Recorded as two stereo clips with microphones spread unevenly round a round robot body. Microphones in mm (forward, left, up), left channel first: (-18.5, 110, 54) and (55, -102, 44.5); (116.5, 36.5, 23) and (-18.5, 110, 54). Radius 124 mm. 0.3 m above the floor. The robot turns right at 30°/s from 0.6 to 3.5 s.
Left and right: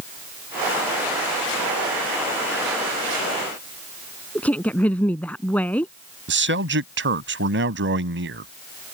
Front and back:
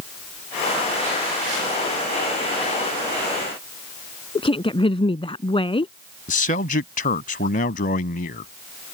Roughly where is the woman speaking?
Ahead left.